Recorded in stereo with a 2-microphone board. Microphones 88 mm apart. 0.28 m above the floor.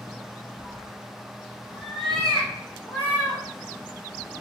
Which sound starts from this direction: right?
A cat meowing, at 0.6 s.